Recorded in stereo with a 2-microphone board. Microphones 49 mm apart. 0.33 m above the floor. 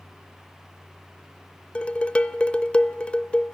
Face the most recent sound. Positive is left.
turn(degrees=25)  # may be behind; listen again after turning